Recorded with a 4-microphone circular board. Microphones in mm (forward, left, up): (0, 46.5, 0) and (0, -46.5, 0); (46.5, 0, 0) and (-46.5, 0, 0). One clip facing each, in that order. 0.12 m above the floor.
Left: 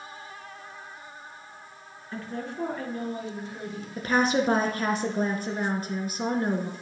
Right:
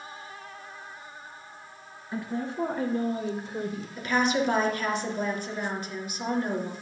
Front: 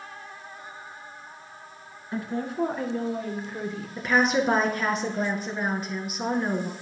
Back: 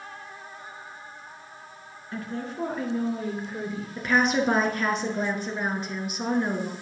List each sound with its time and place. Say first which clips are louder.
2.1 s a woman speaking: right 3 dB, front 4 dB; 30° right, 1.3 m; by 3.9 s 105° right, 1.9 m
4.0 s a woman speaking: left 2 dB, front 1 dB; 90° left, 1.6 m